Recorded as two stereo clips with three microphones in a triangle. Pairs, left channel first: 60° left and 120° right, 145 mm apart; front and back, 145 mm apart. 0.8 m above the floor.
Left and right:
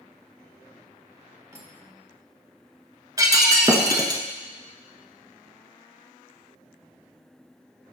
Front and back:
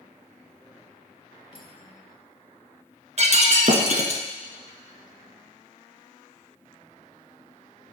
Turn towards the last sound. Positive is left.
turn(degrees=-175)